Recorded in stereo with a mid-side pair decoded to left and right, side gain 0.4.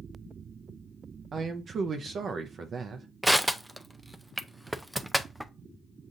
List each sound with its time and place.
1.3 s a man speaking: 55° right, 0.6 m
3.2 s crushing: 10° right, 0.5 m